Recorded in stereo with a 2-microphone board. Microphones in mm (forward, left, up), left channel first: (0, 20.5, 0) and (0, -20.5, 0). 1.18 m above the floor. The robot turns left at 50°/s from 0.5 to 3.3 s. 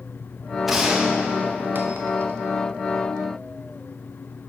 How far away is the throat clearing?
I don't hear throat clearing.